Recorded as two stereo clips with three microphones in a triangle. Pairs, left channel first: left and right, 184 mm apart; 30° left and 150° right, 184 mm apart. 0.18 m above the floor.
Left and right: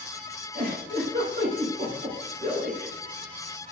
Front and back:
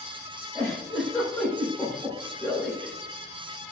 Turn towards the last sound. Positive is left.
turn(degrees=-60)